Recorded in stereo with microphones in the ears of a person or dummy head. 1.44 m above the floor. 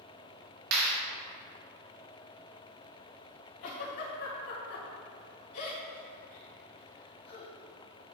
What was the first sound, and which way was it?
A clap, 80° right.